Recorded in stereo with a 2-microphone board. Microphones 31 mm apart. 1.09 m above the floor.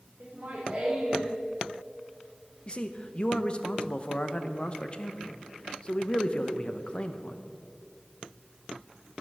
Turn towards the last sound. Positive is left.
turn(degrees=30)  # may be behind; listen again after turning